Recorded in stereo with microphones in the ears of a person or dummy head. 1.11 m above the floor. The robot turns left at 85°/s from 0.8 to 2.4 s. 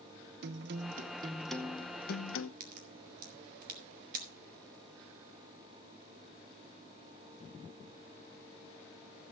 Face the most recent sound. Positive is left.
turn(degrees=-55)  # may be behind; listen again after turning